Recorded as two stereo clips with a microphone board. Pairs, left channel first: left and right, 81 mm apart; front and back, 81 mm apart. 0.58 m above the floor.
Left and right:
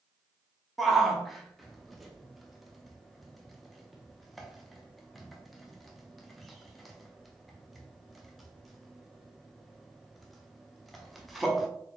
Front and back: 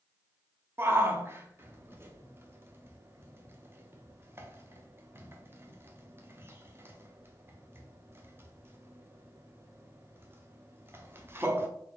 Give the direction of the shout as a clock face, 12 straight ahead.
6 o'clock.